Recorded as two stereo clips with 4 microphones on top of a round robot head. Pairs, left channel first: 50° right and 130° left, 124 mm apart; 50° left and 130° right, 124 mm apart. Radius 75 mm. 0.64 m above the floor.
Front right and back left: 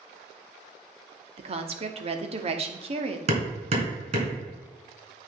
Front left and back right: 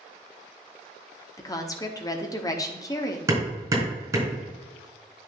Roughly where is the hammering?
Behind.